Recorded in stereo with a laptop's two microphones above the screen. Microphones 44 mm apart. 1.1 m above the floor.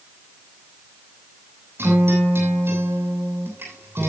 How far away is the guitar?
About 8 m.